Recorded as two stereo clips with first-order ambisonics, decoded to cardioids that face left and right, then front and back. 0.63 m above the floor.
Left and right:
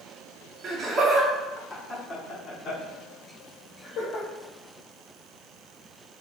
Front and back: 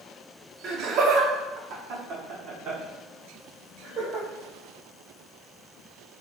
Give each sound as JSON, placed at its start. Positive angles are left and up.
{"t": 0.6, "sound": "laughter", "azimuth_deg": -140, "distance_m": 0.9}